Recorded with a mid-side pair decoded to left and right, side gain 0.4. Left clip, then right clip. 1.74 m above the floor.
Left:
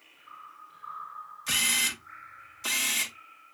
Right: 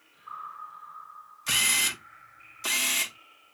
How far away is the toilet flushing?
I don't hear a toilet flushing.